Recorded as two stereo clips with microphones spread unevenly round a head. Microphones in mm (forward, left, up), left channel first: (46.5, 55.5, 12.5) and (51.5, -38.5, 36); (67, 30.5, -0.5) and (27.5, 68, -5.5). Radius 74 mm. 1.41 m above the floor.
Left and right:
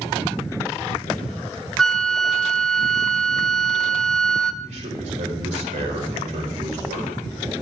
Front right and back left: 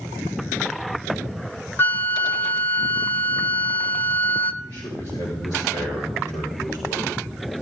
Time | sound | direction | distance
1.8 | a flute | 10° left | 0.9 m
4.6 | a man speaking | 100° right | 4 m